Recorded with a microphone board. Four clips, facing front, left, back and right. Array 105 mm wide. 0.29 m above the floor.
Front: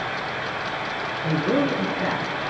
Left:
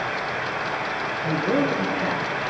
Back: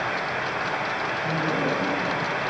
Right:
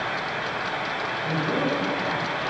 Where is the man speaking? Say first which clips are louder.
Left 4 dB, front 5 dB; 20° left, 5 m; by 2.2 s 30° left, 4.5 m.